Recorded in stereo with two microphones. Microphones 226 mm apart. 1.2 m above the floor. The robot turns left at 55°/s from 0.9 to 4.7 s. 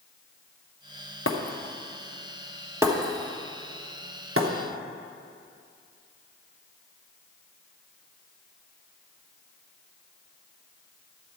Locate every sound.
1.3 s breaking glass: 60° left (ahead or behind), 1.0 m; by 4.5 s 60° right (ahead or behind), 1.0 m